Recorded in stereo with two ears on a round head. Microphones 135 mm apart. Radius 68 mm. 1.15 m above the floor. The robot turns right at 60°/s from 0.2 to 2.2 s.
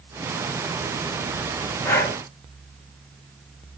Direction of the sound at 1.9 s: 15° left (ahead or behind).